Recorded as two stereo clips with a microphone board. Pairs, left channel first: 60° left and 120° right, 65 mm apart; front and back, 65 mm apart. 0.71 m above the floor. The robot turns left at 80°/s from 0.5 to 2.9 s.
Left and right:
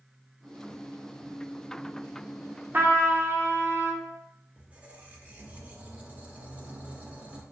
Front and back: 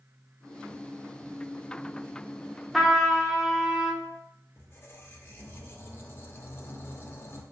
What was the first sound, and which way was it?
A trumpet, 90° right.